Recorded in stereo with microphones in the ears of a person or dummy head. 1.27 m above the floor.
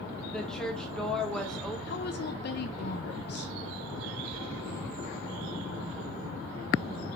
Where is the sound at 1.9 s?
60° left (ahead or behind), 0.9 m.